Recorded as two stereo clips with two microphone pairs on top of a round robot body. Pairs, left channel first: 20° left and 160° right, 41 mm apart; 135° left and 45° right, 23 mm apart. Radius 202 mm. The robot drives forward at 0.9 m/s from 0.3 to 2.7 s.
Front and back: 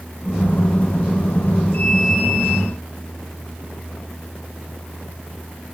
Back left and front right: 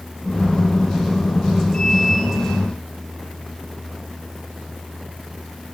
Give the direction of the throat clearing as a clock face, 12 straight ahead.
I don't hear throat clearing.